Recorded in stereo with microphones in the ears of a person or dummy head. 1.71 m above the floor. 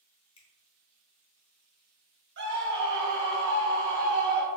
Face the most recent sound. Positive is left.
turn(degrees=-60)  # may be behind; listen again after turning